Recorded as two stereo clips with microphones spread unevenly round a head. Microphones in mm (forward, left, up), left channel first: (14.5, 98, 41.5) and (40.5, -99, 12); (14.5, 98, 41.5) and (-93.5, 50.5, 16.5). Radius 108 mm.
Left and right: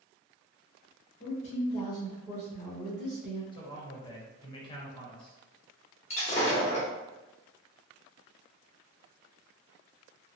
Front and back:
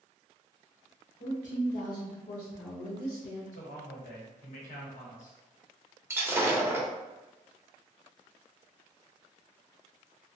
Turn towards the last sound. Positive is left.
turn(degrees=130)